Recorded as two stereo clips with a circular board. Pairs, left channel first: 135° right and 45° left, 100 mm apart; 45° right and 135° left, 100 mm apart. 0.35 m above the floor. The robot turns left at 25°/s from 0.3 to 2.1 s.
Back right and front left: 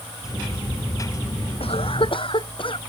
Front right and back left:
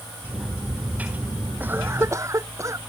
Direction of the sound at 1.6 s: 155° right.